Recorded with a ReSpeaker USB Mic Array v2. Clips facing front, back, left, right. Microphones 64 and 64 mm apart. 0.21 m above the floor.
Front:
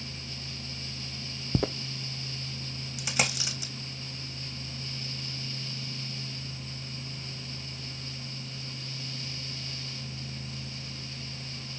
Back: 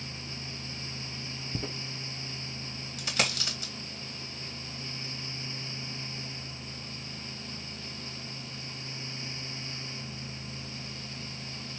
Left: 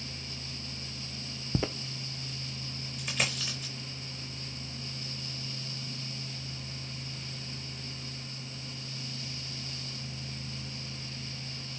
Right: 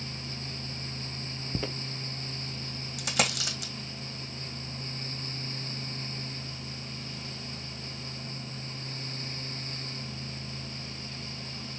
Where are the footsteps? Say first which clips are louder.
Front 10 dB, left 3 dB; 15° left, 0.7 m.